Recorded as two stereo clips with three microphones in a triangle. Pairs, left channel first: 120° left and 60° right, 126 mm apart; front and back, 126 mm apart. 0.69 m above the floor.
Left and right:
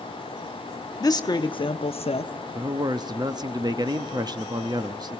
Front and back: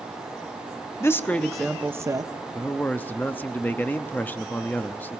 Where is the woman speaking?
65° left, 1.0 m; by 2.3 s 135° left, 0.8 m.